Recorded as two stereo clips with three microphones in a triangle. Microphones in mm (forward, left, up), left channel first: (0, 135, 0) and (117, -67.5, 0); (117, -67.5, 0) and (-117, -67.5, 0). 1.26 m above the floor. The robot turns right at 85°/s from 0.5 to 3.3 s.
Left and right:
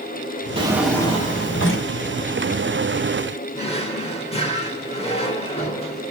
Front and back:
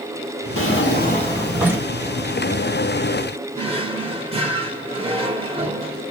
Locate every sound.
0.6 s a drawer: 5° left, 1.4 m; by 1.9 s 115° left, 1.4 m
3.5 s a drawer: 150° left, 1.0 m